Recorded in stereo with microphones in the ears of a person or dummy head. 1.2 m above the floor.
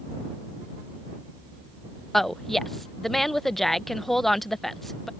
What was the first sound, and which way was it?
A woman speaking, 5° left (ahead or behind).